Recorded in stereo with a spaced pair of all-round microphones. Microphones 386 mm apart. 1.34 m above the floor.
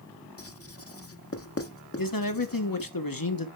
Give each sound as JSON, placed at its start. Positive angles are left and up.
{"t": 0.4, "sound": "writing", "side_deg": 35, "distance_m": 0.9}
{"t": 2.0, "sound": "a man speaking", "side_deg": 60, "distance_m": 1.3}